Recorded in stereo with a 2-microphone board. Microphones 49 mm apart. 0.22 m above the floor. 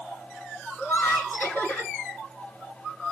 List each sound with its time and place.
0.8 s laughter: 50° left (ahead or behind), 1.9 m